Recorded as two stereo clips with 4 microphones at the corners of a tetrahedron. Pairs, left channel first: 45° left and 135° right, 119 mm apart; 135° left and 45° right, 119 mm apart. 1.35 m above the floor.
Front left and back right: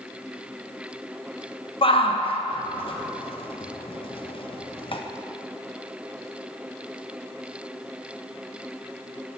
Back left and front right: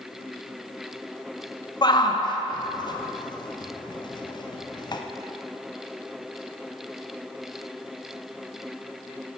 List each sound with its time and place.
1.8 s a shout: 85° left, 0.5 m